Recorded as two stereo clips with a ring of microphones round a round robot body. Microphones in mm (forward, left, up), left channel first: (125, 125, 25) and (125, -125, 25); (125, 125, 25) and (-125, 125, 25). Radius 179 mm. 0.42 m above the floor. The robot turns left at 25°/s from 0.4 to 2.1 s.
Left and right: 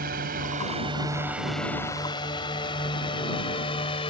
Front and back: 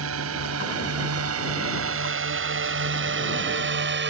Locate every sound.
0.0 s a drone: 150° right; by 4.1 s 160° left